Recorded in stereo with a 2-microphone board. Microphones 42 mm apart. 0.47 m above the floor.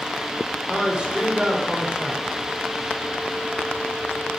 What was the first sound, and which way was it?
A man speaking, 20° right (ahead or behind).